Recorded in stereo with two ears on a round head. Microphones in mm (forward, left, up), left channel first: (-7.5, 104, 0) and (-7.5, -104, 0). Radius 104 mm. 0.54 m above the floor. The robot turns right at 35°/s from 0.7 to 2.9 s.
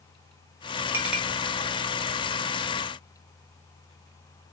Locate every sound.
0.9 s a clink: 10° right (ahead or behind), 0.6 m; by 1.2 s centre (ahead or behind), 0.6 m